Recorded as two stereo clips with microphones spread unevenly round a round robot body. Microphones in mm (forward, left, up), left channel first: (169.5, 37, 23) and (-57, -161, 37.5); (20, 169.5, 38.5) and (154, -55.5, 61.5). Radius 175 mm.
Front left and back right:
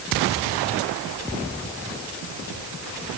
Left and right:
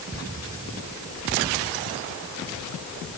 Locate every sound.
Only background noise.